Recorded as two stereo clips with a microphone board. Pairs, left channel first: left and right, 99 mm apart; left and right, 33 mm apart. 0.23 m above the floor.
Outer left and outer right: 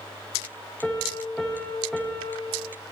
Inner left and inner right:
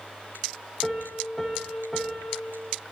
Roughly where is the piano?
Centre.